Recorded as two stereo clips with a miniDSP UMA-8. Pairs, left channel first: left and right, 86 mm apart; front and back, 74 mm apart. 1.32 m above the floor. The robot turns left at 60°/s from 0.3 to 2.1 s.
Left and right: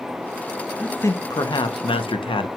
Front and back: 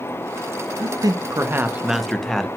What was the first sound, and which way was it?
A man speaking, 165° left.